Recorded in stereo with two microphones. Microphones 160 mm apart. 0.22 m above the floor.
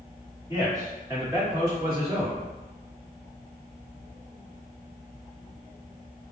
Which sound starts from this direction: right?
A man speaking, at 0.5 s.